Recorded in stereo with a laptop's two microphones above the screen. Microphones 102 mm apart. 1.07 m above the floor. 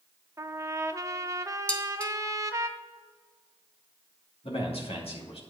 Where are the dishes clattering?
10° left (ahead or behind), 0.7 m.